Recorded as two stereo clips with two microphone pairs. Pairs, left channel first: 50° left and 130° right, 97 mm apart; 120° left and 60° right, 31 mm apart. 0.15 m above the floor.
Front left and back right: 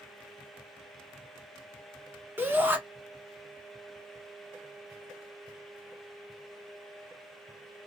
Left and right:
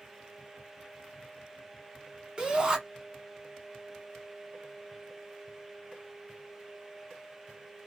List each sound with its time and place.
2.4 s a shout: 90° right, 1.1 m